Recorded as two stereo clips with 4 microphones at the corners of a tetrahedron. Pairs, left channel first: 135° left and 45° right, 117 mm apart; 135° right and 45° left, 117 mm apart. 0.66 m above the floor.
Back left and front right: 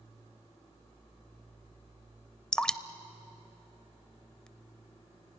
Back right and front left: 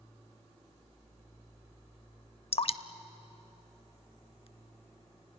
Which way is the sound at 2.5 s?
145° right.